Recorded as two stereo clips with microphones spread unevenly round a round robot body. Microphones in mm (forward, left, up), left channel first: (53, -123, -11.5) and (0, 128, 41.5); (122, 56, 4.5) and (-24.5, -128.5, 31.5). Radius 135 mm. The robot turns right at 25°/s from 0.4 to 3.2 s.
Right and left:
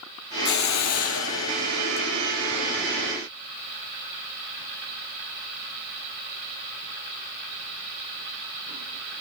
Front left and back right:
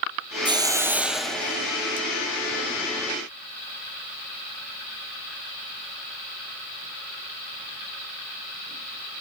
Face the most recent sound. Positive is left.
turn(degrees=10)